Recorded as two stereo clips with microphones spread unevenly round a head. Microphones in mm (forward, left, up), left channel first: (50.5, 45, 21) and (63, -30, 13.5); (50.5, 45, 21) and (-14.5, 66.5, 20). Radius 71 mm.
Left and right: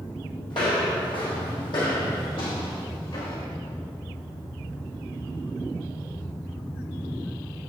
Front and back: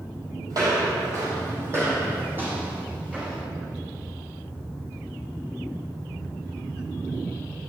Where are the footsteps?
135° left, 2 m; by 3.4 s 90° left, 3.5 m.